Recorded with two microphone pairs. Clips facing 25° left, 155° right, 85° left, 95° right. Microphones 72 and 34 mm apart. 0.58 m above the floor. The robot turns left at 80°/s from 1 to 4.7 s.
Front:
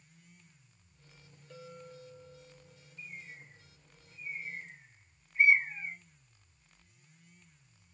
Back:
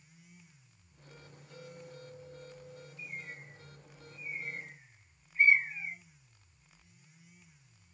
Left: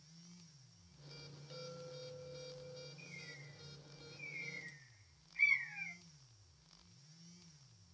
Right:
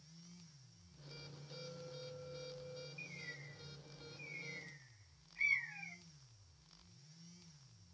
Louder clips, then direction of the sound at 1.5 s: Front 1 dB, left 1 dB; 25° left.